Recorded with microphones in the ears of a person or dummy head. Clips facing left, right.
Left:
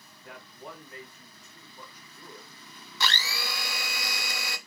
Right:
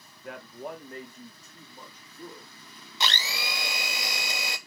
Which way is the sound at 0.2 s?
55° right (ahead or behind).